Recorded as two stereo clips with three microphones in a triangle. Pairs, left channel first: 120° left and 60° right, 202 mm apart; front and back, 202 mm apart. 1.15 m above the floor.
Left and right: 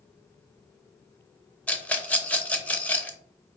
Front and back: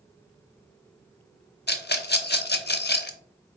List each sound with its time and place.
1.7 s a rattle: 40° left, 0.6 m